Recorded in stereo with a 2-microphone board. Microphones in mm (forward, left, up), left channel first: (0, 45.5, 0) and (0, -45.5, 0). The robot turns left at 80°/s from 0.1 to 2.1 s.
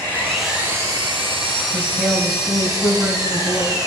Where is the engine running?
20° left, 3 m; by 3.9 s 140° right, 3 m.